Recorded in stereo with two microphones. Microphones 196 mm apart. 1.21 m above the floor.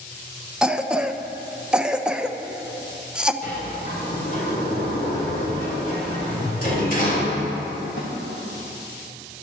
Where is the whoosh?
15° left (ahead or behind), 1.3 m.